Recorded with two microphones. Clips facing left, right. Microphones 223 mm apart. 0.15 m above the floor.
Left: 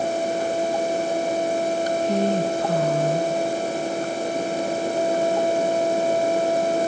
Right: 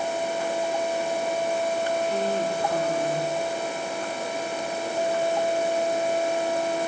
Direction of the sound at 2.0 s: 75° left (ahead or behind).